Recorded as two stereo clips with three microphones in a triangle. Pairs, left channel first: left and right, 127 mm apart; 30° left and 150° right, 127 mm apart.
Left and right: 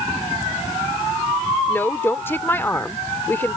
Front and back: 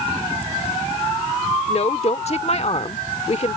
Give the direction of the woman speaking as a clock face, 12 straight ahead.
11 o'clock.